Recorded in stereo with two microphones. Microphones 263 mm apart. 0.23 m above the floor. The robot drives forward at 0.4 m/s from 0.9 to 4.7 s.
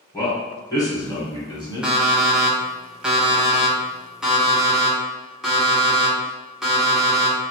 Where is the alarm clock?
5° right (ahead or behind), 0.7 m; by 7.4 s centre (ahead or behind), 1.1 m.